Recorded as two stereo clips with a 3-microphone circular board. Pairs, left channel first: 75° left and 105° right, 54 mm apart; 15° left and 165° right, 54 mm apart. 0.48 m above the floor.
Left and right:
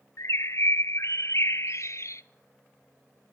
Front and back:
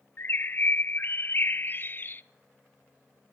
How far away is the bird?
About 0.6 m.